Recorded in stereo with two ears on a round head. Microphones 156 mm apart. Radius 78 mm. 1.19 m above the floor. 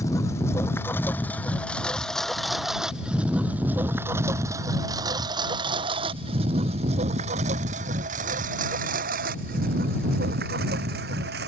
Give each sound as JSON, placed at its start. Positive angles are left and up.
{"t": 0.0, "sound": "a lawn mower", "side_deg": 20}